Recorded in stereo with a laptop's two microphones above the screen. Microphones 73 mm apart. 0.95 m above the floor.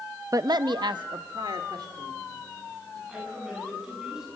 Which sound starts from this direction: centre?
A woman speaking, at 3.1 s.